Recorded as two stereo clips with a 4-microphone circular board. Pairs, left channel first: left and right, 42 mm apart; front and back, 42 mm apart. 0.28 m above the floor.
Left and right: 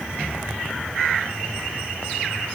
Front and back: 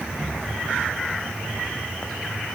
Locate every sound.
Only background noise.